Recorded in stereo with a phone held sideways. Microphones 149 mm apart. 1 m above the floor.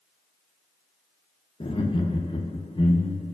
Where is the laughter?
35° left (ahead or behind), 0.6 m.